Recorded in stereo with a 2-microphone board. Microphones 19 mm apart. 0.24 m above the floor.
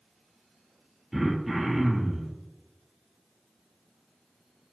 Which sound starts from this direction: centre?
Throat clearing, at 1.1 s.